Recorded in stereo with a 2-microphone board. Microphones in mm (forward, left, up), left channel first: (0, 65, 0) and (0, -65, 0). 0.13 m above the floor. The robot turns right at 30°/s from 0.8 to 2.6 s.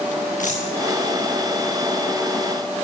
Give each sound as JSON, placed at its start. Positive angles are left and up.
{"t": 0.4, "sound": "a dropped coin", "side_deg": 75, "distance_m": 4.5}